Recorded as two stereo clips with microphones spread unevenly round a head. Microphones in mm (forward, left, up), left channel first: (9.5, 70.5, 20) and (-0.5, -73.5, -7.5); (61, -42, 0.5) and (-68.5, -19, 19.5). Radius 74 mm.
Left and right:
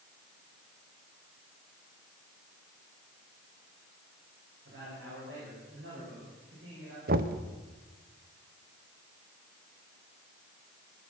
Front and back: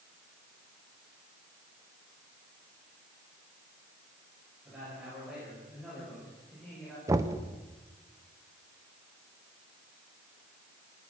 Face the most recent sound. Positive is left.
turn(degrees=-125)